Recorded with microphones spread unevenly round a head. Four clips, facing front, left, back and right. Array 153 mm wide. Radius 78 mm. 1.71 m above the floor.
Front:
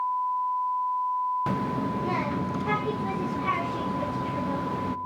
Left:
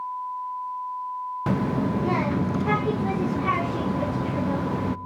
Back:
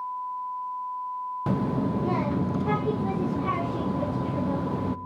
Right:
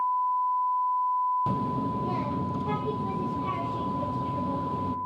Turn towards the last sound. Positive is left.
turn(degrees=75)